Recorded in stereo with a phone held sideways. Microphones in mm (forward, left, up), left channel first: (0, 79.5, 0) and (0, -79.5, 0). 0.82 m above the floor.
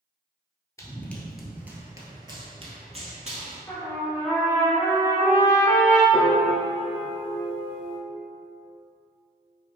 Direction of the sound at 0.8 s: 20° left (ahead or behind).